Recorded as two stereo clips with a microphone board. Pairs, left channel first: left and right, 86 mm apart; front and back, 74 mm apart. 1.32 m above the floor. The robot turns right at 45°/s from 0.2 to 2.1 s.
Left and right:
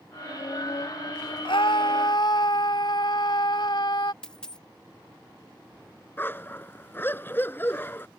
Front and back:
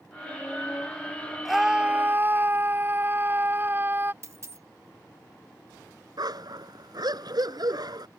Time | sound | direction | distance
1.4 | a scream | 90° left | ?
4.2 | a dropped coin | 165° left | ?
6.2 | a dog barking | 155° left | ?